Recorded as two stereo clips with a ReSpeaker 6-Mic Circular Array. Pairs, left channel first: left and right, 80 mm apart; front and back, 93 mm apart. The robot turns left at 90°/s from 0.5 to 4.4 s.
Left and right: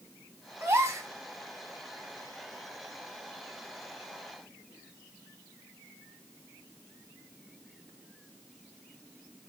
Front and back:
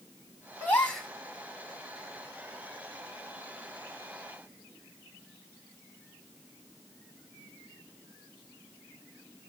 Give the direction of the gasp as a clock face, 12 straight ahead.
2 o'clock.